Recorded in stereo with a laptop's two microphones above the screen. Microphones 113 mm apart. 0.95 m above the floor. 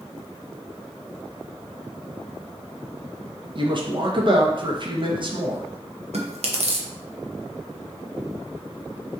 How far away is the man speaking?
About 0.8 m.